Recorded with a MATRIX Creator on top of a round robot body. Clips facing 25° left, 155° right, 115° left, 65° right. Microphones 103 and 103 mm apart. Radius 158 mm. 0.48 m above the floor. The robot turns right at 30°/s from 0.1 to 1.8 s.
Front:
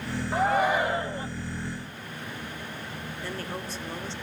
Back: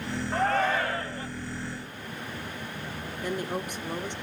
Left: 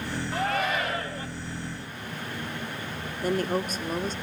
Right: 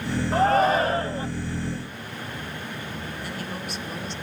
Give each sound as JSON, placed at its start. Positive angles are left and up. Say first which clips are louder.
{"t": 0.3, "sound": "a shout", "louder": "front 2 dB, right 9 dB", "azimuth_deg": -55, "distance_m": 1.4}
{"t": 3.2, "sound": "a woman speaking", "louder": "back 5 dB, left 12 dB", "azimuth_deg": 135, "distance_m": 2.0}